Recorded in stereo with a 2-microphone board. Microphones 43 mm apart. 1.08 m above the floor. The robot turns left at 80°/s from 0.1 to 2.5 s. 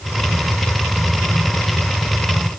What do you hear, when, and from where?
Only background noise.